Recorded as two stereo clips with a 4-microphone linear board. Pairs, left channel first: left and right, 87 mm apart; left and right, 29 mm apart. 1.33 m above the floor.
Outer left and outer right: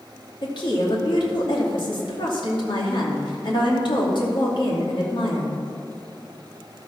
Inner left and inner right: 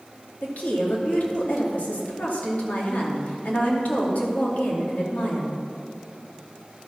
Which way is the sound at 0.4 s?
65° left (ahead or behind).